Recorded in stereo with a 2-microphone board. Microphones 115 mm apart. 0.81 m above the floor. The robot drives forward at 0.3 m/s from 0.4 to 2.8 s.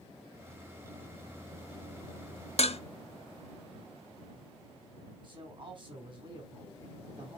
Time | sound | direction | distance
2.6 | dishes clattering | 65° left (ahead or behind) | 0.6 m
5.2 | a man speaking | 45° right (ahead or behind) | 2.5 m